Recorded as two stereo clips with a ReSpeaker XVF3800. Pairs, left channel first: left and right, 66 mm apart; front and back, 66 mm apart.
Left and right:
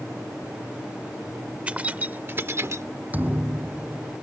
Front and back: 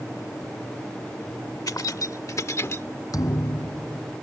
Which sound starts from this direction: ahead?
Keys jangling, at 1.7 s.